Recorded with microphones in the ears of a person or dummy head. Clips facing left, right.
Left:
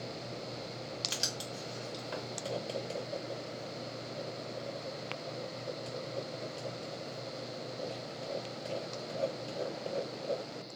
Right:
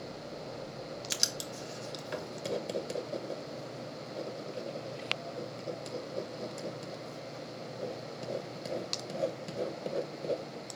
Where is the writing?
20° right (ahead or behind), 0.7 m.